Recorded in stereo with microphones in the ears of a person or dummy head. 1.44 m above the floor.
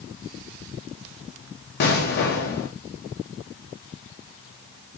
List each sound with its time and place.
1.8 s an explosion: 55° left (ahead or behind), 0.8 m